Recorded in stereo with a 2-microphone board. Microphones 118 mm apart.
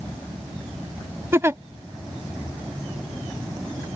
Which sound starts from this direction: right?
A giggle, at 1.3 s.